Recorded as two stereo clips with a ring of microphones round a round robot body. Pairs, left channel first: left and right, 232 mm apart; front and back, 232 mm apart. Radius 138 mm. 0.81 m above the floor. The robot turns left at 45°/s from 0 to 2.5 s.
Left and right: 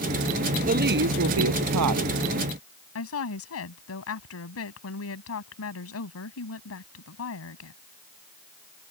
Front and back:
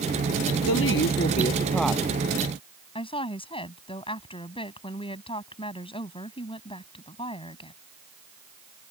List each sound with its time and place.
0.7 s a woman speaking: 35° right; by 2.1 s 100° right
3.0 s a woman speaking: 70° left